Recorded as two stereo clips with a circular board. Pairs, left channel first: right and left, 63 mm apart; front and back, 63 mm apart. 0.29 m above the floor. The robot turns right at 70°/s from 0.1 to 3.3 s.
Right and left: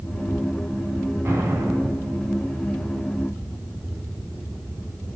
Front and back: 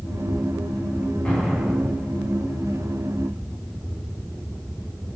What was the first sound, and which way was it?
An explosion, 70° left.